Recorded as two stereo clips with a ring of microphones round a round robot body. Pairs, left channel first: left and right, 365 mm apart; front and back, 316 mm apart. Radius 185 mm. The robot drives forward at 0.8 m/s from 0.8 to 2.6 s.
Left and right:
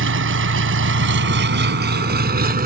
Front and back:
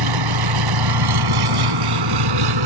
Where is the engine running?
150° right; by 2.7 s 160° right.